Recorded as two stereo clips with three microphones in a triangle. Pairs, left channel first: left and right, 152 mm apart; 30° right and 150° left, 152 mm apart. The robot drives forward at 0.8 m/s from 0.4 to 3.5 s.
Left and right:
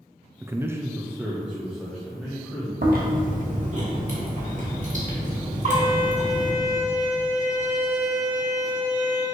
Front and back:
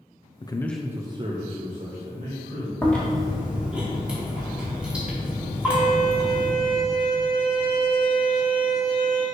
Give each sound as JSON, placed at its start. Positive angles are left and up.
{"t": 0.4, "sound": "a man speaking", "azimuth_deg": -30, "distance_m": 0.5}
{"t": 2.8, "sound": "chewing", "azimuth_deg": -110, "distance_m": 1.5}
{"t": 5.7, "sound": "a violin", "azimuth_deg": 155, "distance_m": 2.0}